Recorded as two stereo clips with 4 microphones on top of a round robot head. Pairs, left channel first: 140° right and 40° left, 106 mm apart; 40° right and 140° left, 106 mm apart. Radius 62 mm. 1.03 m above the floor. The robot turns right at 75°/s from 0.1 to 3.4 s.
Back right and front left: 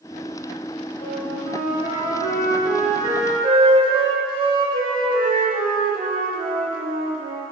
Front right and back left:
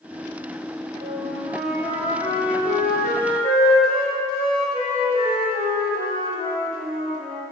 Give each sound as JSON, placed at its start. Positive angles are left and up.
{"t": 1.0, "sound": "a flute", "azimuth_deg": 180, "distance_m": 1.3}